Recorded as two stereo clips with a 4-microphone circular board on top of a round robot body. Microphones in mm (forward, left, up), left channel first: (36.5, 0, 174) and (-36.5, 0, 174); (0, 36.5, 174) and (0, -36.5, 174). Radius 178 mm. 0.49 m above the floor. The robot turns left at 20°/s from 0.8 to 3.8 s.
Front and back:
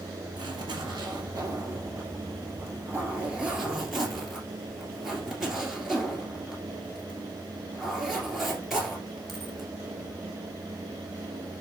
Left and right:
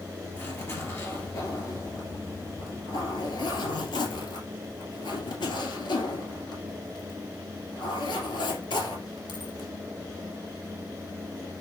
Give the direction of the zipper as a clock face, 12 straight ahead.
7 o'clock.